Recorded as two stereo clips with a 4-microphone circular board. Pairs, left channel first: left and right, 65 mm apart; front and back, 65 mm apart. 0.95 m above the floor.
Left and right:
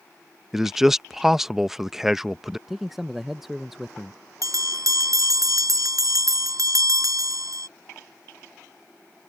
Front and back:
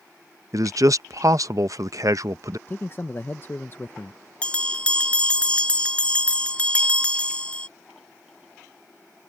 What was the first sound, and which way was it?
A man speaking, 170° right.